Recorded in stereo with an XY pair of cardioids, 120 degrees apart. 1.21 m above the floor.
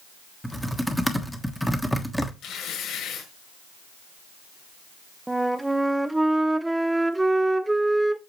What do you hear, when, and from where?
0.4 s typing on a keyboard: straight ahead, 1.2 m
2.4 s tearing paper: 70° left, 4.5 m
5.3 s a flute: 10° right, 0.6 m